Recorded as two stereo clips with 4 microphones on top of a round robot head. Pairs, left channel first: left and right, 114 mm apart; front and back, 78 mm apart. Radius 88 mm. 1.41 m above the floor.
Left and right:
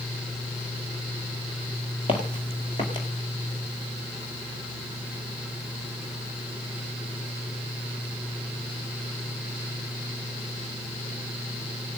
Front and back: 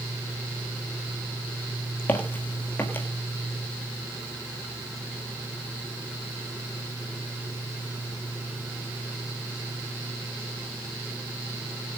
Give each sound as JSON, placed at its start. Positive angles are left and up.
{"t": 2.1, "sound": "footsteps", "azimuth_deg": 45, "distance_m": 1.7}